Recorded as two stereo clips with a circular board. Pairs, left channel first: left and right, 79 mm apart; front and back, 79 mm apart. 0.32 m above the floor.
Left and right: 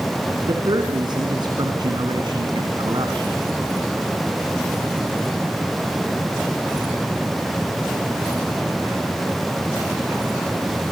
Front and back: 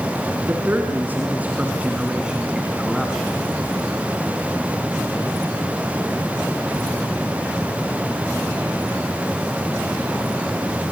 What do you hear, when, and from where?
0.5 s a man speaking: 120° right, 3.5 m; by 3.4 s 85° right, 2.5 m